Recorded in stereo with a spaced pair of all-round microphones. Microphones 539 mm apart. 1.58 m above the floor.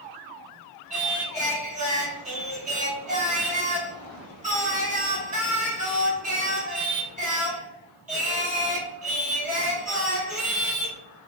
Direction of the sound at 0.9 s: 15° right (ahead or behind).